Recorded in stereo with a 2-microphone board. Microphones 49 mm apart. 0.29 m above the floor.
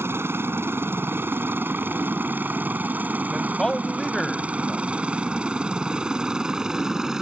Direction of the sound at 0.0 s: 55° right (ahead or behind).